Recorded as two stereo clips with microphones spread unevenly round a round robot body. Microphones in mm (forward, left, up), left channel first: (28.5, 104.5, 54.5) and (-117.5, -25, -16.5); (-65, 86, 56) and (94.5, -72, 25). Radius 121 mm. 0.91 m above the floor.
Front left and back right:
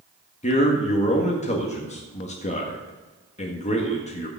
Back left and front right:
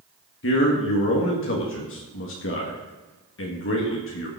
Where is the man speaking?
105° left, 1.8 m.